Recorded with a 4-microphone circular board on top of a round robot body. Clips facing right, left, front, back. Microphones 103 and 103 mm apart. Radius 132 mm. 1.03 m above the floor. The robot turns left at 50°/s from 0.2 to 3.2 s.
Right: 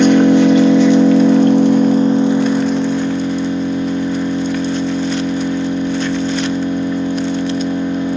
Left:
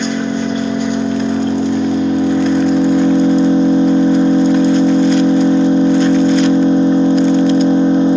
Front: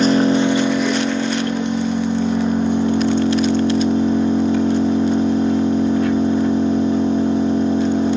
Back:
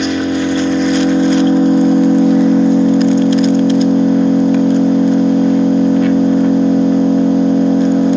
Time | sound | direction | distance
0.0 | an engine running | 55° right | 1.1 m